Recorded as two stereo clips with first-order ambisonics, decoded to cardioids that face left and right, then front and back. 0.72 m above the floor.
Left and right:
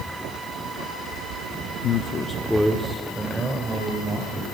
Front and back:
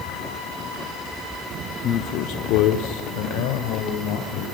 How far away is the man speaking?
About 1.0 m.